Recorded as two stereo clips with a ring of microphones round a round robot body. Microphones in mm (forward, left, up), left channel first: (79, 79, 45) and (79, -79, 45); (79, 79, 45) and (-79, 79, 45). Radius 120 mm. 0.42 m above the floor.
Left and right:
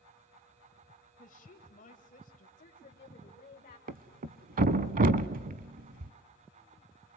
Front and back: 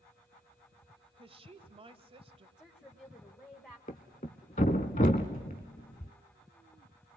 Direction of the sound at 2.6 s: 75° left.